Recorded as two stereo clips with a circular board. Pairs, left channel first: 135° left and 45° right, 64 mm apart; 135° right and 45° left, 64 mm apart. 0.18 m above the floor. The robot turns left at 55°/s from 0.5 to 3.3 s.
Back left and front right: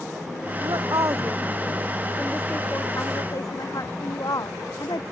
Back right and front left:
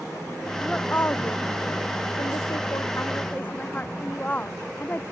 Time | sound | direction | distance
0.6 | a woman speaking | 55° right | ?